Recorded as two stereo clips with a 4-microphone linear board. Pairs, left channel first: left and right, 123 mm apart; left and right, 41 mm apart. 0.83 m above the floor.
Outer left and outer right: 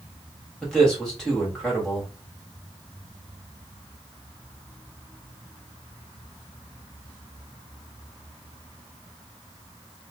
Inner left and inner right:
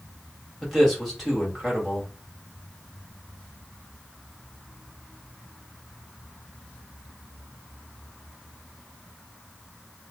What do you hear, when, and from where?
0.6 s a man speaking: 5° left (ahead or behind), 1.5 m